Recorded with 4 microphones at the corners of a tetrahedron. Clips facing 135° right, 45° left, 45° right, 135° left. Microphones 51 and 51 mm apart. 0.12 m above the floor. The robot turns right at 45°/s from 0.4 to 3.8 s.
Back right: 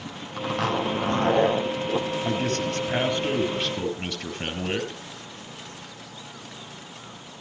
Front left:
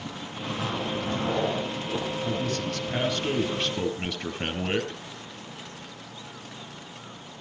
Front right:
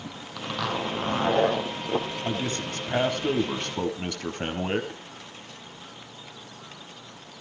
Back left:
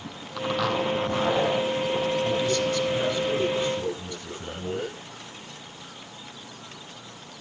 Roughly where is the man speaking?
Right.